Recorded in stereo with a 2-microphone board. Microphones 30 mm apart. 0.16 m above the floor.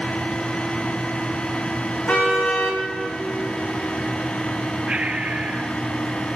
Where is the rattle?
I don't hear a rattle.